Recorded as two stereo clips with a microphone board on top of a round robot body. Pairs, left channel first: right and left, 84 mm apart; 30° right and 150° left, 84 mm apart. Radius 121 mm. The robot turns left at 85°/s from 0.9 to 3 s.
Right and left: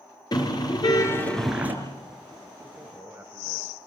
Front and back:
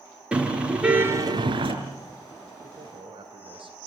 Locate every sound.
0.3 s a car horn: 130° right, 5 m; by 1.7 s 155° left, 5 m
2.6 s a man speaking: 175° right, 3.5 m; by 3.9 s 155° left, 3.5 m